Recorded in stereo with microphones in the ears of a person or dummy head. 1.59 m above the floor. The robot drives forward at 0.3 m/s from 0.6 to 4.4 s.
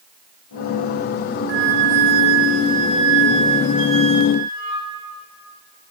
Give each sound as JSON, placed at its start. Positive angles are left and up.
{"t": 1.5, "sound": "a flute", "side_deg": -65, "distance_m": 0.6}